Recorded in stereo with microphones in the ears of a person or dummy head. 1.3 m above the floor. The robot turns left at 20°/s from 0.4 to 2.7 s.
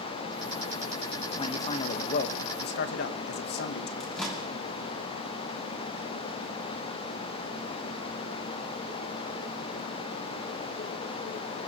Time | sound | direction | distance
1.4 | a man speaking | 25° left (ahead or behind) | 1.2 m
4.0 | a microwave | centre (ahead or behind) | 3 m